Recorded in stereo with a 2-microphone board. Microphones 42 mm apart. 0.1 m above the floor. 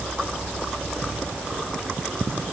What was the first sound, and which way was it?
Only background noise.